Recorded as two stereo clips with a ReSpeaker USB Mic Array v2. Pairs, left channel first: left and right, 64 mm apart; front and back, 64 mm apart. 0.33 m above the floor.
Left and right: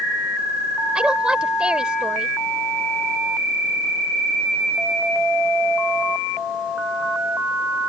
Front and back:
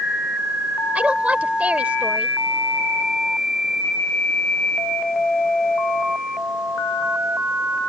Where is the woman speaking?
145° right.